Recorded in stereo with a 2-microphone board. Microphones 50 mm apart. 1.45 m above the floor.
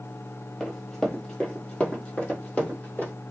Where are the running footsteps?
5° left (ahead or behind), 1.5 m; by 3.1 s 30° left (ahead or behind), 2.0 m.